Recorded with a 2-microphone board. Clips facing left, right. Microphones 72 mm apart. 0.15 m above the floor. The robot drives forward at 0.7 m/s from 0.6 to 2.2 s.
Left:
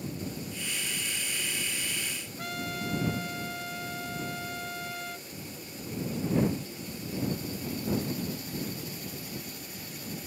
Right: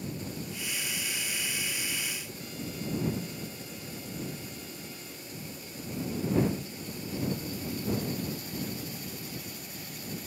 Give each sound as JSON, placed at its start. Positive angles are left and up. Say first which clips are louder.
{"t": 2.4, "sound": "a trumpet", "louder": "left 6 dB", "side_deg": 65}